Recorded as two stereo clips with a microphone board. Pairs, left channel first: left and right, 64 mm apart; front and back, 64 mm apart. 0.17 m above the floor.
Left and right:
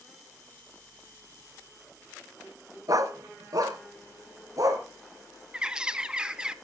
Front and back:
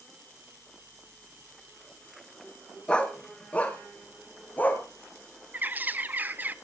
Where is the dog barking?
75° right, 1.3 m; by 4.8 s 60° right, 2.5 m.